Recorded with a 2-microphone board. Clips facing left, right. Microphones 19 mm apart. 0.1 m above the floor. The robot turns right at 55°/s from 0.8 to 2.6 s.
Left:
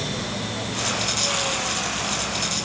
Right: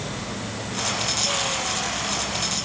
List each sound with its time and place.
Only background noise.